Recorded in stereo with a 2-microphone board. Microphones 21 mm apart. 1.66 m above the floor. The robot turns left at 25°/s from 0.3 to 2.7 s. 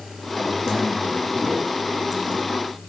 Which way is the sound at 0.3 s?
10° right.